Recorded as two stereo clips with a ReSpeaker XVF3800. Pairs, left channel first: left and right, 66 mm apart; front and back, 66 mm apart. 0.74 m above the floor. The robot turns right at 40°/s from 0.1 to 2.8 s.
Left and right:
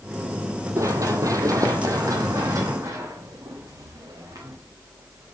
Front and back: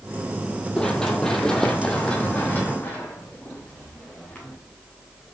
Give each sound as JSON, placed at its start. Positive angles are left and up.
{"t": 0.8, "sound": "running footsteps", "azimuth_deg": -75, "distance_m": 1.3}